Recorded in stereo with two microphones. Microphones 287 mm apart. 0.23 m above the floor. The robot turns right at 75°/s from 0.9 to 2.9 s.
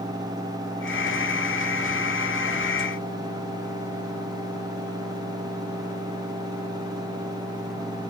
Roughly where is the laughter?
No laughter in this recording.